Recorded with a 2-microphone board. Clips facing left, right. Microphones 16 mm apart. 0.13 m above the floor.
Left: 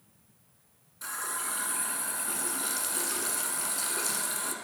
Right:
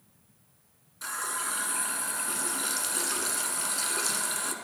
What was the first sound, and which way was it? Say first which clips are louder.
A running tap: right 2 dB; 20° right (ahead or behind).